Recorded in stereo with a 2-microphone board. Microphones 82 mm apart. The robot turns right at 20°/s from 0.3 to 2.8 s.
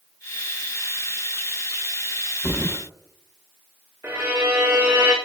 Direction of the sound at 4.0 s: 25° right (ahead or behind).